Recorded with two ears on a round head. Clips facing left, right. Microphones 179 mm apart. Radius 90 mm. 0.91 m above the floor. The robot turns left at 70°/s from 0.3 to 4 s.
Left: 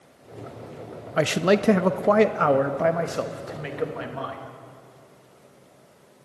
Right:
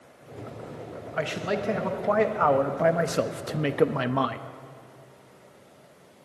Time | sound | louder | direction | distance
1.2 | a man speaking | left 8 dB | 115° left | 0.8 m